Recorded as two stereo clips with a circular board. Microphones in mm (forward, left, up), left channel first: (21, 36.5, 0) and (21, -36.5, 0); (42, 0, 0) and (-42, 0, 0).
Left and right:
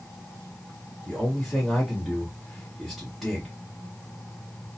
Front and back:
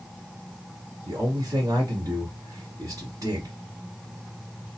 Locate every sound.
1.1 s a man speaking: 175° right, 1.3 m